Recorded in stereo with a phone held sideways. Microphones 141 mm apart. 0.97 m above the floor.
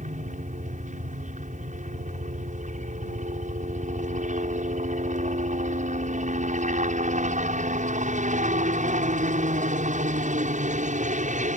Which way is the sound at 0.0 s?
60° right (ahead or behind).